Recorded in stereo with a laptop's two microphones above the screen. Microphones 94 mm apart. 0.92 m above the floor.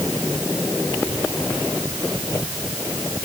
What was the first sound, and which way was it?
Only background noise.